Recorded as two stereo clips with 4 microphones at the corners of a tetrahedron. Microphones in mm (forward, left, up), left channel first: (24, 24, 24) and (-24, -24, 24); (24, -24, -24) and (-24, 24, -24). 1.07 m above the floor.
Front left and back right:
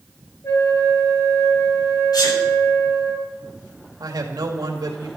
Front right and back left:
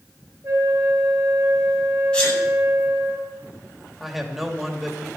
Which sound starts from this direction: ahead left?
A sneeze, at 2.1 s.